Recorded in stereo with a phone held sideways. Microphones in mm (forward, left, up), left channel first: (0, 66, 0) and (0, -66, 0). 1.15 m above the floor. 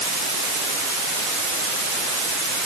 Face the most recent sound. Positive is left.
No sound to turn to.